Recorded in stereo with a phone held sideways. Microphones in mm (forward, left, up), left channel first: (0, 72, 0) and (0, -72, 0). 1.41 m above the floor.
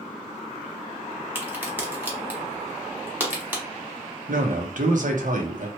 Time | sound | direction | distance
1.4 | a crack | 10° right (ahead or behind) | 1.0 m
4.3 | a man speaking | 65° right (ahead or behind) | 0.8 m